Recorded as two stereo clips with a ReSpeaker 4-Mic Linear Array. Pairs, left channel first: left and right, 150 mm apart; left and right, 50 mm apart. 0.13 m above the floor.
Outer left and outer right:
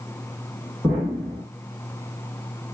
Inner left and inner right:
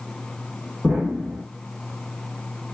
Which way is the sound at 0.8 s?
5° right (ahead or behind).